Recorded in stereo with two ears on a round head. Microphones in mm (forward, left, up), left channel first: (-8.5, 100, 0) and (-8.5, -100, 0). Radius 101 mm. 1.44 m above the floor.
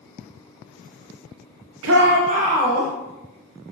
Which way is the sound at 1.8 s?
60° right (ahead or behind).